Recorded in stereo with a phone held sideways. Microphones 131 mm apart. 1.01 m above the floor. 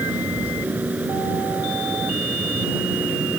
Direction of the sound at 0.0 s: 10° right (ahead or behind).